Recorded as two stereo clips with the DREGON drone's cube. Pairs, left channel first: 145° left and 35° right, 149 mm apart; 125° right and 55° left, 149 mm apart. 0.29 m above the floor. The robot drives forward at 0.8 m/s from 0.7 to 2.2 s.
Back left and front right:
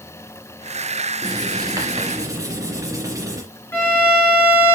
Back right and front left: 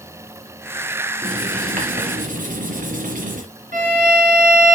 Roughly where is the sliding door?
I don't hear a sliding door.